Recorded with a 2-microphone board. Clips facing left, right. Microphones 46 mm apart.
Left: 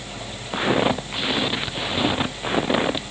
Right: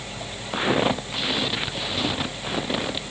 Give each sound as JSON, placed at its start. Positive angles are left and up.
{"t": 0.5, "sound": "footsteps", "side_deg": 0}